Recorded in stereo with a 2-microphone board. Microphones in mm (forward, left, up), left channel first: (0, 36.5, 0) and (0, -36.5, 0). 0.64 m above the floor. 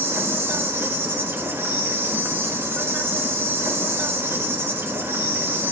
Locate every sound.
0.0 s an insect: 30° right (ahead or behind), 1.2 m